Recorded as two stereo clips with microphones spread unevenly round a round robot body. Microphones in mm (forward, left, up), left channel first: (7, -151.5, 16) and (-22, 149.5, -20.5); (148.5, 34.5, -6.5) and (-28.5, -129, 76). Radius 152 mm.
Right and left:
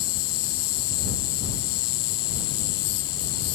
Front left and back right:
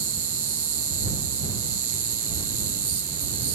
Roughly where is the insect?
Right.